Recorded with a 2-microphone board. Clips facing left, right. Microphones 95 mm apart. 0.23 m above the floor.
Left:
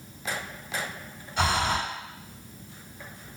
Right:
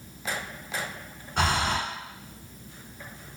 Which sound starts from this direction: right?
Breathing, at 1.4 s.